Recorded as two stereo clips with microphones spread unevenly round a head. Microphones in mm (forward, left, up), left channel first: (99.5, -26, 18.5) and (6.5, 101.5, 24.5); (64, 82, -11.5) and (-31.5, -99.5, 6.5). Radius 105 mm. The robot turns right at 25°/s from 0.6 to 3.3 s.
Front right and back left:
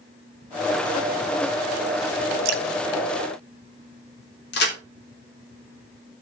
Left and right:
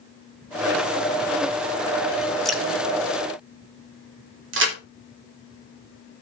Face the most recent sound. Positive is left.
turn(degrees=-90)